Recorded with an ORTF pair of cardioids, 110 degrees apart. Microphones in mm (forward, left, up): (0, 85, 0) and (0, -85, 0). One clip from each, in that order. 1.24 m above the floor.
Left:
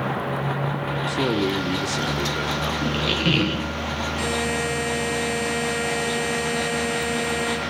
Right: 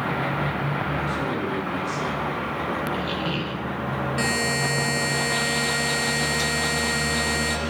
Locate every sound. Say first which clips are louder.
1.1 s a man speaking: left 3 dB; 60° left, 2 m; by 2.7 s 75° left, 3.5 m
2.8 s a squeak: left 4 dB; 45° left, 0.6 m
4.2 s a buzzer: right 2 dB; 35° right, 5.5 m